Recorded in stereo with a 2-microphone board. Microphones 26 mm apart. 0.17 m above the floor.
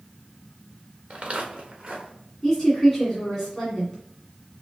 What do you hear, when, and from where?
1.1 s footsteps: 55° right (ahead or behind), 1.4 m; by 2.1 s 40° right (ahead or behind), 2 m
2.4 s a woman speaking: 10° left (ahead or behind), 1.7 m